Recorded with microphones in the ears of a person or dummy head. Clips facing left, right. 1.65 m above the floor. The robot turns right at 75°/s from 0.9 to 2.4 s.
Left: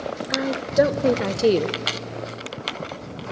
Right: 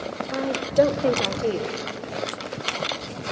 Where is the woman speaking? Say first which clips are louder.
Even; 10° left, 0.8 m; by 1.8 s 75° left, 0.8 m.